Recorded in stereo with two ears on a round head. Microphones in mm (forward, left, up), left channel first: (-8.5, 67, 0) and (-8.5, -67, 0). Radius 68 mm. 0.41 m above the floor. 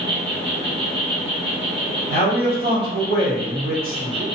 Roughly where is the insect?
Right.